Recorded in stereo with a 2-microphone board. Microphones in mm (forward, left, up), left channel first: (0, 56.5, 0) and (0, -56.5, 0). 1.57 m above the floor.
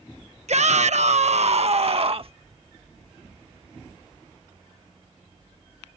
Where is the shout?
70° right (ahead or behind); by 2.3 s 50° right (ahead or behind).